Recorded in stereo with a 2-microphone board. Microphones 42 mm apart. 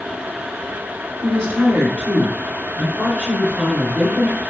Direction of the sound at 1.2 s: 30° left (ahead or behind).